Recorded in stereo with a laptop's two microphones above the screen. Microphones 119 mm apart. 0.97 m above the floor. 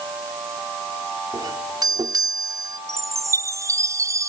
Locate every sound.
1.3 s a doorbell: 35° right (ahead or behind)
2.9 s a chime: 25° right (ahead or behind)